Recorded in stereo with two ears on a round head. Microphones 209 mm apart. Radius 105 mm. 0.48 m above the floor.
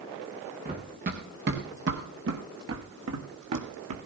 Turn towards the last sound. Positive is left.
turn(degrees=-75)  # may be behind; listen again after turning